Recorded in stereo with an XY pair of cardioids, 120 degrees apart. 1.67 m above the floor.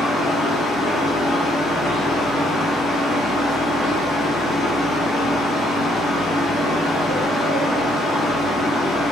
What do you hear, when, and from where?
0.0 s a fan: 60° left, 1.4 m